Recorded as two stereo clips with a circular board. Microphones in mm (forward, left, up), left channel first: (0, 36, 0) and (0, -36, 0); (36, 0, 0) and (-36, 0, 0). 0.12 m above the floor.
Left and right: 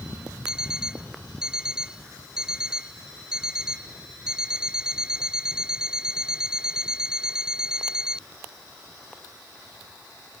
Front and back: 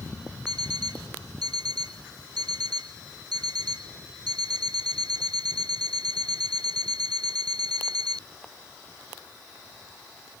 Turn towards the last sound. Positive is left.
turn(degrees=-170)